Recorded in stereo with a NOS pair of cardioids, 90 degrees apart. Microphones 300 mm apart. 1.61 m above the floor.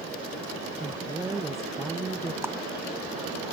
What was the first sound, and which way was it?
A woman speaking, 10° right.